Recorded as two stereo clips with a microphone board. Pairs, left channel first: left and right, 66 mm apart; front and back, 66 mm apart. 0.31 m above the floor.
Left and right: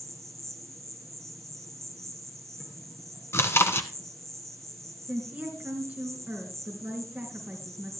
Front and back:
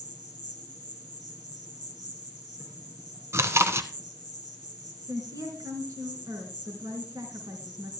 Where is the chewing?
135° left, 1.1 m.